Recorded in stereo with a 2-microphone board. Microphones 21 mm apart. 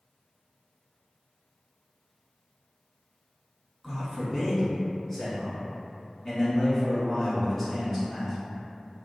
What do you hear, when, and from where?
3.8 s a man speaking: 10° left (ahead or behind), 1.2 m